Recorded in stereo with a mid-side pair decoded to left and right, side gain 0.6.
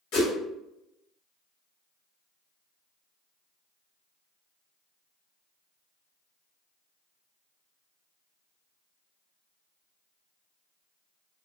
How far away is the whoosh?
About 1.2 m.